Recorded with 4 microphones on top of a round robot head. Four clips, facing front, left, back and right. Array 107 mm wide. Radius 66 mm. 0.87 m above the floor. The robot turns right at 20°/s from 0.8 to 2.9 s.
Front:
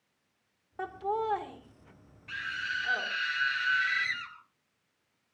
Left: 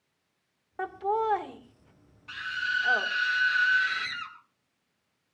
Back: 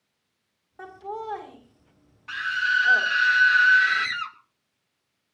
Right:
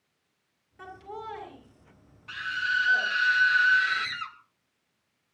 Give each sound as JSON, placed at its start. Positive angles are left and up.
{"t": 0.8, "sound": "laughter", "azimuth_deg": 70, "distance_m": 2.5}
{"t": 2.3, "sound": "a scream", "azimuth_deg": 175, "distance_m": 2.5}